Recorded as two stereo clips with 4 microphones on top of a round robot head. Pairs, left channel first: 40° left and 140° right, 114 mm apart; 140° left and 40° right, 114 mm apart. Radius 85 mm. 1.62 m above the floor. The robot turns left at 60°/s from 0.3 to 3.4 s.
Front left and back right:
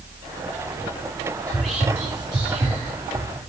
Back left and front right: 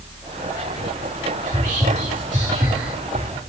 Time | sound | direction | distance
1.5 | whispering | 35° right | 2.0 m